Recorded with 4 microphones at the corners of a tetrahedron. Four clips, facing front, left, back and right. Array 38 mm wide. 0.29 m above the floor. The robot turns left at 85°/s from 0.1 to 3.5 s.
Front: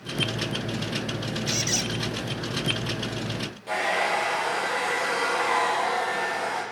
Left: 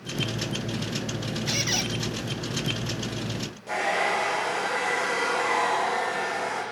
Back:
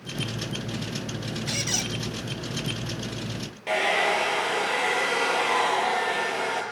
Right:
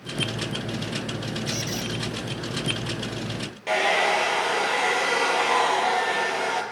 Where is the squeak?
120° left, 1.1 m; by 1.9 s 80° left, 1.1 m.